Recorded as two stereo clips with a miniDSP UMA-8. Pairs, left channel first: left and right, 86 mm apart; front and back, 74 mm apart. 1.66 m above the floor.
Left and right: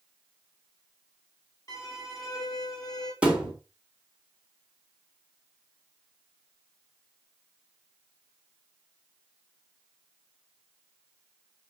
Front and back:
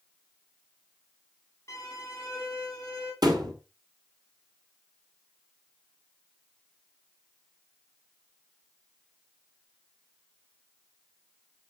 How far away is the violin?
About 3 m.